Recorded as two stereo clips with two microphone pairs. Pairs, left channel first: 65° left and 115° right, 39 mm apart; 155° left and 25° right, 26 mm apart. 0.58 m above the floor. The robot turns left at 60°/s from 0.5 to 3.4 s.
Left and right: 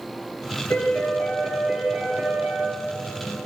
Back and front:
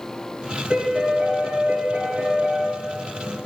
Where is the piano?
35° left, 5 m; by 2.7 s 85° right, 5 m.